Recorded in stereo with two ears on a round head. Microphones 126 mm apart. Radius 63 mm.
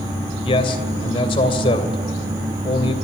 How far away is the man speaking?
About 2.5 m.